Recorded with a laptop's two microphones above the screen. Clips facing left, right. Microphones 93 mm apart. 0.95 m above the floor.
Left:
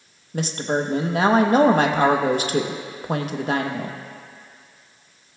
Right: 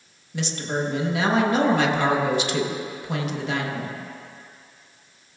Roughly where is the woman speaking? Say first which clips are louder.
Left 4 dB; left.